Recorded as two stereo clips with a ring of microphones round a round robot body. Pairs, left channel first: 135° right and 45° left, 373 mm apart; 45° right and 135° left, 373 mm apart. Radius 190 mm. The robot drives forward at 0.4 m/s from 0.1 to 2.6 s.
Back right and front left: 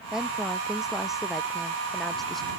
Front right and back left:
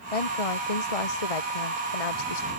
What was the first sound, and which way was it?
A woman speaking, 45° right.